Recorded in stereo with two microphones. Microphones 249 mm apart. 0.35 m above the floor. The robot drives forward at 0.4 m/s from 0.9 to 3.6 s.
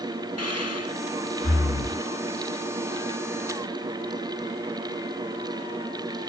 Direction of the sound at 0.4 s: 75° left (ahead or behind).